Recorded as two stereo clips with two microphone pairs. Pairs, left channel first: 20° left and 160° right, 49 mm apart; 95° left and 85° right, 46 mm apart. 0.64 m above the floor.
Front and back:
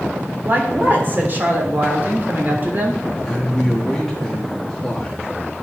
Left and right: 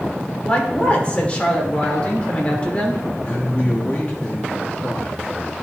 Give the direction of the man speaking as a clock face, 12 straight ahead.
9 o'clock.